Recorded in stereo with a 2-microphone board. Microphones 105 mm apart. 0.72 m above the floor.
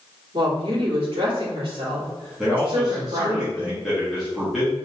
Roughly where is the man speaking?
Centre.